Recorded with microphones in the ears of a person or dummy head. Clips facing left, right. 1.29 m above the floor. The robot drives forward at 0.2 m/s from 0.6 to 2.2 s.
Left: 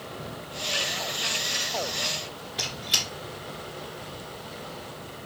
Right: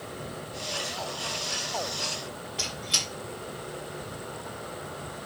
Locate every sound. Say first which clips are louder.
2.6 s a squeak: even; 20° left (ahead or behind), 1.5 m